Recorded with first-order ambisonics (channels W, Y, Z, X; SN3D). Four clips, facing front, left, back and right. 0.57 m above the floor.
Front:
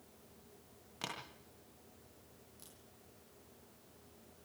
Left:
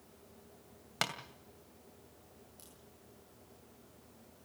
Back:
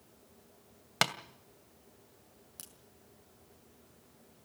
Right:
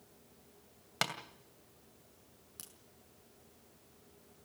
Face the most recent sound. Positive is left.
turn(degrees=-145)